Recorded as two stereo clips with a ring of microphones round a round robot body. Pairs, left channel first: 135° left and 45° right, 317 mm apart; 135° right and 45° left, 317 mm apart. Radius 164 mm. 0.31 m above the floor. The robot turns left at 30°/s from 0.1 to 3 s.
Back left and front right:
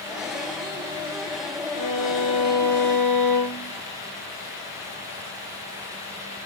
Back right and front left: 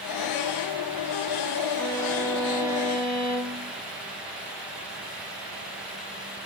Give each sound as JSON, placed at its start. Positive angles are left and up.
{"t": 1.7, "sound": "a violin", "azimuth_deg": 140, "distance_m": 8.0}